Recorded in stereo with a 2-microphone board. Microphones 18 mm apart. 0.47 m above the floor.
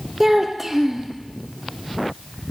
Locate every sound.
0.2 s a child speaking: 20° right (ahead or behind), 0.7 m